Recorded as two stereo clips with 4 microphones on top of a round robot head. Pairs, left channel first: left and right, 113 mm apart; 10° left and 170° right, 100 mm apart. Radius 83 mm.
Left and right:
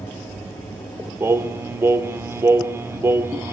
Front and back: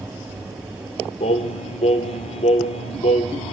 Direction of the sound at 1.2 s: 20° right.